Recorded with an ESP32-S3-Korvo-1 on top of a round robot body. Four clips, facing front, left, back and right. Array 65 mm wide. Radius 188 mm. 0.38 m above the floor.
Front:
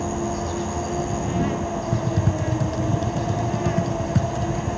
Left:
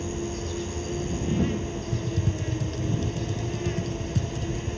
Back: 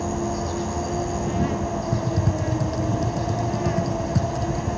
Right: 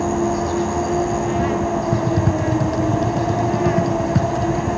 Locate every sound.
0.0 s an insect: 85° right
1.9 s typing on a keyboard: 75° right